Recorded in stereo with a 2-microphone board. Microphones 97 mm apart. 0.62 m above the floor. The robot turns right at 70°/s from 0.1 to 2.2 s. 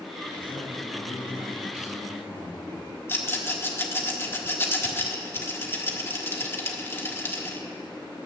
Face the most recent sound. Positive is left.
turn(degrees=25)  # may be behind; listen again after turning